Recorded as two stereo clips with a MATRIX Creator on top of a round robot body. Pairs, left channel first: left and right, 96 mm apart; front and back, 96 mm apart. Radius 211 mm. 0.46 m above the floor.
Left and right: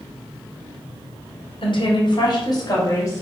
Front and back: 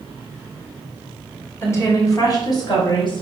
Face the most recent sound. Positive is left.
turn(degrees=35)